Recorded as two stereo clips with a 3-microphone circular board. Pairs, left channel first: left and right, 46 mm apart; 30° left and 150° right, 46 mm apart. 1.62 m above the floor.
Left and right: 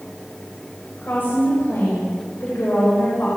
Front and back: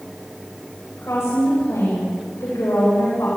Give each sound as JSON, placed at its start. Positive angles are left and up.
{"t": 1.0, "sound": "a woman speaking", "azimuth_deg": 50, "distance_m": 7.5}